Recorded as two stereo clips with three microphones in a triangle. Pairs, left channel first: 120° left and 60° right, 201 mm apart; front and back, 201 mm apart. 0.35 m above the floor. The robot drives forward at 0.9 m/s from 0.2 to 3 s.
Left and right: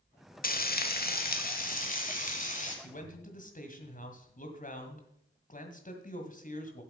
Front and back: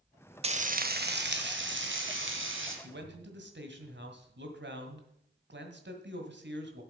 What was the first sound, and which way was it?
Frying, 135° left.